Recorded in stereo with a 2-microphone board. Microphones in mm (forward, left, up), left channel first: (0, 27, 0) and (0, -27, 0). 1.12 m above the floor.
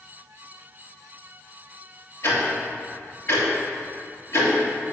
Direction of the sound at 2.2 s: 55° left (ahead or behind).